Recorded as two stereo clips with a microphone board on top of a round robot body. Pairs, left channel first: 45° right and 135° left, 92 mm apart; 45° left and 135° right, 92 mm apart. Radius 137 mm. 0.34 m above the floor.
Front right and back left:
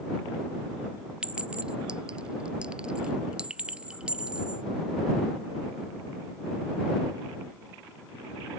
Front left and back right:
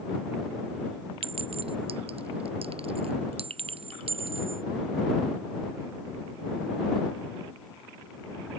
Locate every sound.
1.2 s a clink: 145° right